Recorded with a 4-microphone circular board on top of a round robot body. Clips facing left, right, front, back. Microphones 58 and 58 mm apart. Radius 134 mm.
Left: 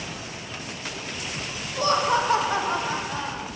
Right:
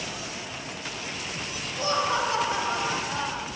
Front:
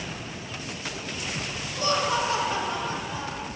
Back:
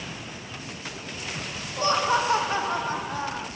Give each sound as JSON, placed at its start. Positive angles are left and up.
{"t": 1.8, "sound": "laughter", "azimuth_deg": 125, "distance_m": 2.5}